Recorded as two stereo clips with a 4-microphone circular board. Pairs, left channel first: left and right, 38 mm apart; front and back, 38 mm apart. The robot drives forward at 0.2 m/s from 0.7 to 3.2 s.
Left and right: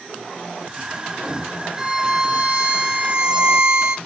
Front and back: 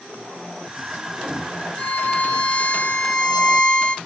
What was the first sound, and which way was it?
A violin, 25° right.